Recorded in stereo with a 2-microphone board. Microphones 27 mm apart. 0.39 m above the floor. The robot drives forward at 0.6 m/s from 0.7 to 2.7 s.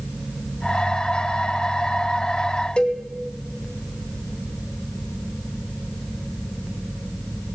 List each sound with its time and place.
2.8 s a cowbell: 35° left (ahead or behind), 2.0 m